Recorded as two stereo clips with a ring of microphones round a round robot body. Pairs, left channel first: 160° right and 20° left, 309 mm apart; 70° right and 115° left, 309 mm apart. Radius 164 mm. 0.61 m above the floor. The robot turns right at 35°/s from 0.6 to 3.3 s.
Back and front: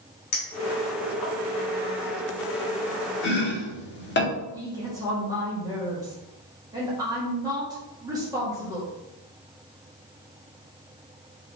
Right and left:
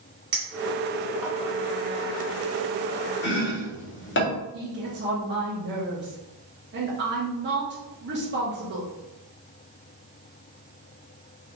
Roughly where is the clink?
Behind.